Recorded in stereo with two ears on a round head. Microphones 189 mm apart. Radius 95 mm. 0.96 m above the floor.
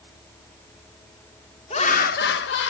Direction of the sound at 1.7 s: 30° left (ahead or behind).